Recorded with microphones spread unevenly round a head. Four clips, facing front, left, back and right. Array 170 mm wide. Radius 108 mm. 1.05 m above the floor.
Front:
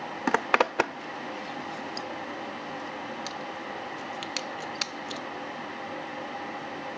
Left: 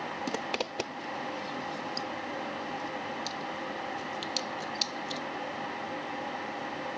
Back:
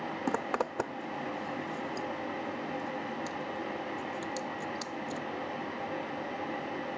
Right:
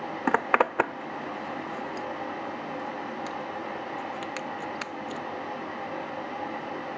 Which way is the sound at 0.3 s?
50° right.